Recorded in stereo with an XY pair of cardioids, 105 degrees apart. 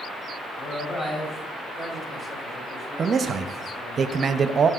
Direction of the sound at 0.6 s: 25° left.